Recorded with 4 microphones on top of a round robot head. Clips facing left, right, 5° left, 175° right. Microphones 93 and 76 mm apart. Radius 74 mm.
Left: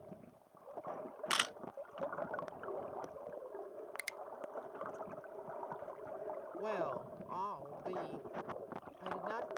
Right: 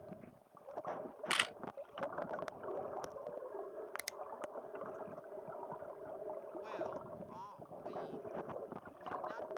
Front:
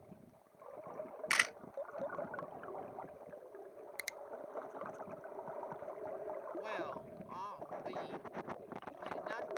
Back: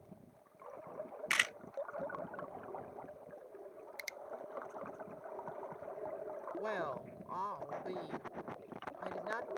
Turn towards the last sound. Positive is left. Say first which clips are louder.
# left 7 dB, back 7 dB
turn(degrees=130)